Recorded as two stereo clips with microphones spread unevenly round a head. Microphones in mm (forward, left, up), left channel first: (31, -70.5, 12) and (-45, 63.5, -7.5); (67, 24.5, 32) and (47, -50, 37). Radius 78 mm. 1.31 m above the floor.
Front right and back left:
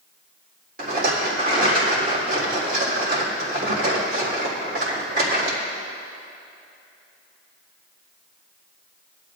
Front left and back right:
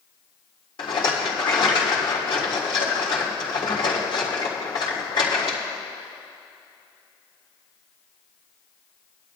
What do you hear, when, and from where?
0.8 s a rattle: 80° left, 3.5 m